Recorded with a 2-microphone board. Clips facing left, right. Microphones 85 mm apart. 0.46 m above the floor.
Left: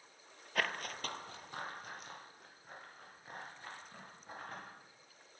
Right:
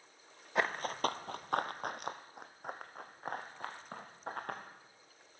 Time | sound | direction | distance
0.6 | running footsteps | 25° right (ahead or behind) | 0.5 m